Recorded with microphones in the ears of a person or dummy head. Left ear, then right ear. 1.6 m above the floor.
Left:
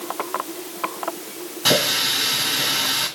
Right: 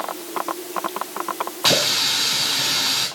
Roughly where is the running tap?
Centre.